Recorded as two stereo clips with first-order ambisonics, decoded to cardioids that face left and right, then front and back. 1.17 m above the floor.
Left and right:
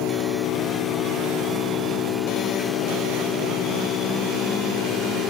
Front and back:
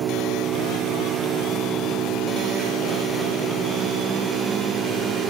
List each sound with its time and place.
0.0 s an engine running: 130° left